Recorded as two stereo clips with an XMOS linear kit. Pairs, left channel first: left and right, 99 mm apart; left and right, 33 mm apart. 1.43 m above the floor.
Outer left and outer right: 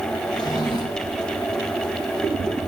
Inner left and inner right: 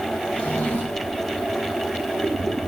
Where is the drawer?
45° left (ahead or behind), 3 m.